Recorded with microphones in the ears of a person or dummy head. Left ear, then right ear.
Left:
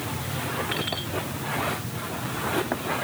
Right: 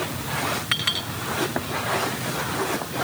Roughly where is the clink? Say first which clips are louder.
Right 5 dB; right.